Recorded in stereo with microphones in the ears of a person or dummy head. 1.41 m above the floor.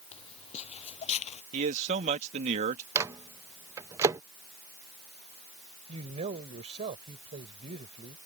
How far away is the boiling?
No boiling in this recording.